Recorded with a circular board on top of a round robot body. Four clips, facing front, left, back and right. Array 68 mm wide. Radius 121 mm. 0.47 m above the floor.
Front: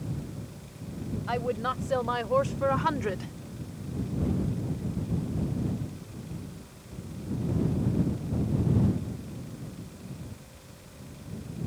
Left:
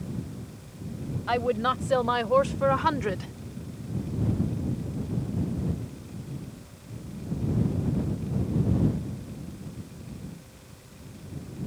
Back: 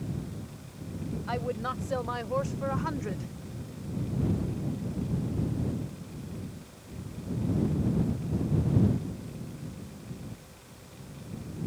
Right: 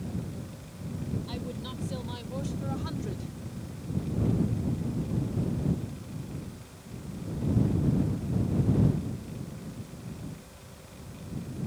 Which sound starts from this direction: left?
A woman speaking, at 1.3 s.